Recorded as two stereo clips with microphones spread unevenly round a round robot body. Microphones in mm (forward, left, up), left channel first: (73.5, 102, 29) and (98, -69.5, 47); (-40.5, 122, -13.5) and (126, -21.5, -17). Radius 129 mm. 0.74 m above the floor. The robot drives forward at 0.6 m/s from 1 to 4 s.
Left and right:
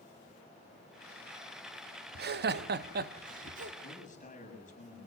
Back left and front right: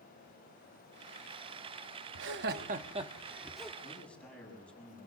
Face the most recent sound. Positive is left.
turn(degrees=55)